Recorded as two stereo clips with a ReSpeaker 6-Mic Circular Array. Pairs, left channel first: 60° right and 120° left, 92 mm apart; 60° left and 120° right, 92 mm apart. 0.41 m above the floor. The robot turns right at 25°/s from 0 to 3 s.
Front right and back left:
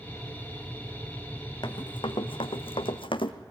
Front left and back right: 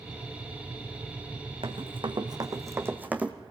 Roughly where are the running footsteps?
Right.